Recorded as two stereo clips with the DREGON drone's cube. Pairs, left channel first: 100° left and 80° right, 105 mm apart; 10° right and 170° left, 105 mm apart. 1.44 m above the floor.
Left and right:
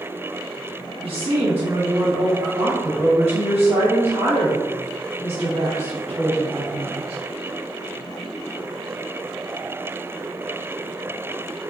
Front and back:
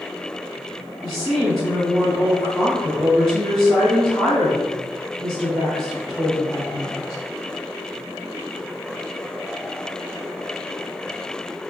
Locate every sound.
1.0 s a woman speaking: 85° right, 0.9 m